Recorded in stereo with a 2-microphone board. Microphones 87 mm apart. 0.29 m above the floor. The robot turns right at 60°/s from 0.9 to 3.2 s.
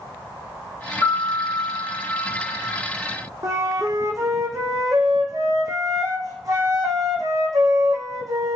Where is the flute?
40° right (ahead or behind), 3 m.